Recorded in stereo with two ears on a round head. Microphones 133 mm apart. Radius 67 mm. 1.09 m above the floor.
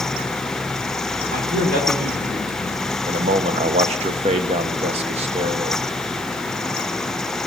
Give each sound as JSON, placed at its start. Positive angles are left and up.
{"t": 1.3, "sound": "a man speaking", "side_deg": -55, "distance_m": 2.5}
{"t": 3.1, "sound": "a man speaking", "side_deg": -40, "distance_m": 0.7}